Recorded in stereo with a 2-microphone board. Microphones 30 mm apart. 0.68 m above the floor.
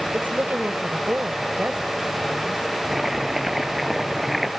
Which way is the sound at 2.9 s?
10° right (ahead or behind).